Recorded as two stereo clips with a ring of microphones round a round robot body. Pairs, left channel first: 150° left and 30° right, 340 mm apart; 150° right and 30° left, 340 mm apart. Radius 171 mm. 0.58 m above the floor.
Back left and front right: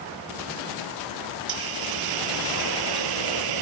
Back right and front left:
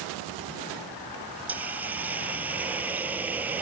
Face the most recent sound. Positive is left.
turn(degrees=-55)